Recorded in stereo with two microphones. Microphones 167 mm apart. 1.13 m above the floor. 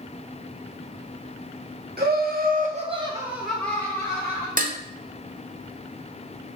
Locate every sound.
2.0 s laughter: 70° right (ahead or behind), 1.2 m; by 4.5 s 25° left (ahead or behind), 1.7 m
4.6 s dishes clattering: 55° right (ahead or behind), 0.6 m